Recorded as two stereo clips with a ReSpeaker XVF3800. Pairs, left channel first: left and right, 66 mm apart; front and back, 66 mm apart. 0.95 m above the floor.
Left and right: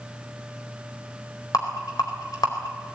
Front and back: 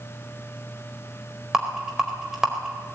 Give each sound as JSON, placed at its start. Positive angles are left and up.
{"t": 1.5, "sound": "a rattle", "azimuth_deg": 95, "distance_m": 4.0}